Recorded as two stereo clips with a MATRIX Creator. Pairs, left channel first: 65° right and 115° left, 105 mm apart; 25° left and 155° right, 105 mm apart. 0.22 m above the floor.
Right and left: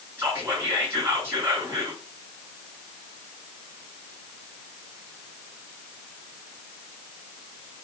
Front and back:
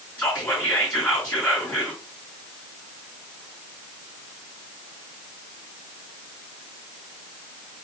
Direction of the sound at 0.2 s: 70° left.